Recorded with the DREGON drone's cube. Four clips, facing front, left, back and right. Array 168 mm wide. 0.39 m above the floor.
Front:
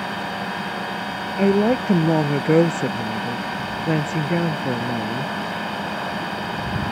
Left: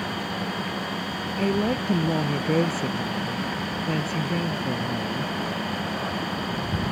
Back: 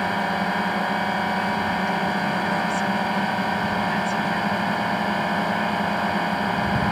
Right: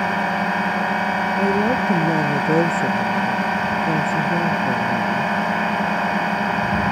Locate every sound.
0.0 s a drone: 110° right
1.4 s a woman speaking: 15° right